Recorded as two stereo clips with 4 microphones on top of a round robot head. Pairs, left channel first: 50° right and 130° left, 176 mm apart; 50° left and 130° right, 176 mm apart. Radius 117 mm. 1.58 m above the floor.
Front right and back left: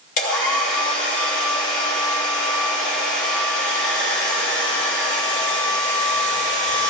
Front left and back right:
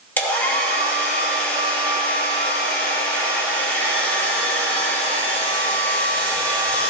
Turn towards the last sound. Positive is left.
turn(degrees=-30)